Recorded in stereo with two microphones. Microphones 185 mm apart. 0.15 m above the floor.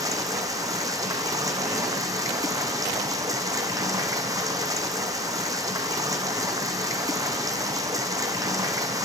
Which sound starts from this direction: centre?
Running water, at 0.0 s.